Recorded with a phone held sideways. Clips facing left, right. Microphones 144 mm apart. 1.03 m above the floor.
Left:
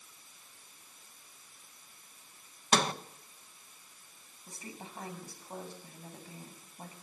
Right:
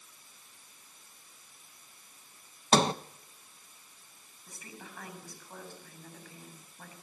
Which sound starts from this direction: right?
A sliding door, at 2.7 s.